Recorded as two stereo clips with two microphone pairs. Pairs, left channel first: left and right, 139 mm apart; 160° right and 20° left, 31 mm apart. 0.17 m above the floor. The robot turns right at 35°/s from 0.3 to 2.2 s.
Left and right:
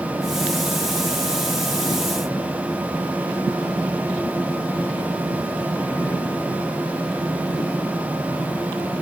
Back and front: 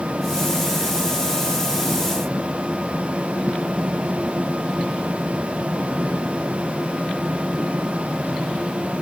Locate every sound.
Only background noise.